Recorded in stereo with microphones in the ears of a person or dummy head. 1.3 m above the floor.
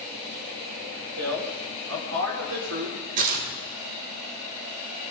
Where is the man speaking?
80° right, 5.5 m; by 3.0 s 85° right, 4 m.